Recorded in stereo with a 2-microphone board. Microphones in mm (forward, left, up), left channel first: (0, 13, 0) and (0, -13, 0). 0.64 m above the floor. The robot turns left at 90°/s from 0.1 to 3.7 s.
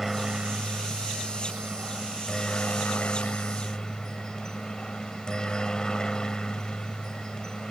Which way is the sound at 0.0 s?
5° right.